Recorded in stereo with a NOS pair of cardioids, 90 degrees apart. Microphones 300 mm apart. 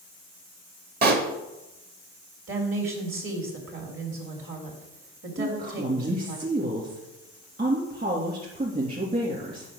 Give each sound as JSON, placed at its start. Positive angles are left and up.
{"t": 1.0, "sound": "a pop", "azimuth_deg": -35, "distance_m": 1.5}
{"t": 2.5, "sound": "a woman speaking", "azimuth_deg": -45, "distance_m": 3.5}
{"t": 5.4, "sound": "a woman speaking", "azimuth_deg": -30, "distance_m": 2.5}